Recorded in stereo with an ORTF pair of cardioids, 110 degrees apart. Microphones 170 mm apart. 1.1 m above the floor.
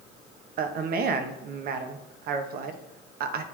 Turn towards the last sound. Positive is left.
turn(degrees=-60)